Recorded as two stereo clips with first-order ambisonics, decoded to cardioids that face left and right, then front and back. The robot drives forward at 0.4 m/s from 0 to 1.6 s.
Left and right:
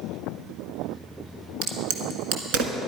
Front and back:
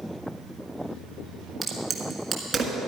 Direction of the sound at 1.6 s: 110° right.